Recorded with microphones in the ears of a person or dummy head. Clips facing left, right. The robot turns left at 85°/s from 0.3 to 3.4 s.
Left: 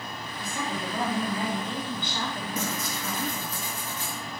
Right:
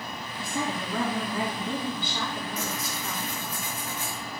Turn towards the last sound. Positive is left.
turn(degrees=35)